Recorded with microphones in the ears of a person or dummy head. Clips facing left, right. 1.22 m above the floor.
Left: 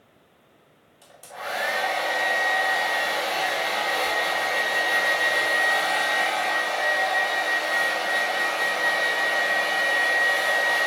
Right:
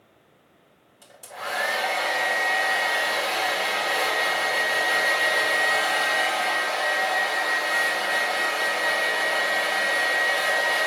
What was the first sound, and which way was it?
A hair dryer, 5° right (ahead or behind).